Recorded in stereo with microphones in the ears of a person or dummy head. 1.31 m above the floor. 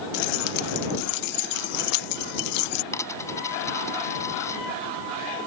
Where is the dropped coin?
15° left (ahead or behind).